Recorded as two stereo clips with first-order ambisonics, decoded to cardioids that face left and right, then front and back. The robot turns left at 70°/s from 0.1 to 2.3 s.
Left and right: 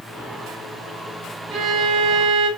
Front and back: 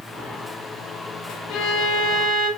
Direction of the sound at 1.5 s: 20° right.